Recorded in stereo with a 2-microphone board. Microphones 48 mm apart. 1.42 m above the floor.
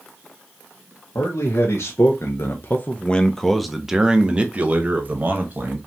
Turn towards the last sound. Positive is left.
turn(degrees=-40)  # may be behind; listen again after turning